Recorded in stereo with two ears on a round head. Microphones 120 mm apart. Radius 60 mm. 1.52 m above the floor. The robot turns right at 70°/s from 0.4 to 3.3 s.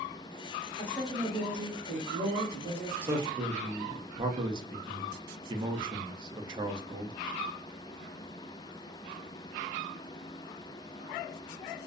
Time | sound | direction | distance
0.8 | a woman speaking | 160° left | 0.9 m
3.0 | a man speaking | 15° right (ahead or behind) | 0.5 m